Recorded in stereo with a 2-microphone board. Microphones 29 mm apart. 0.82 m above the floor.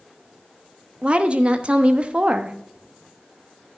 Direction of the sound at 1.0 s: 40° right (ahead or behind).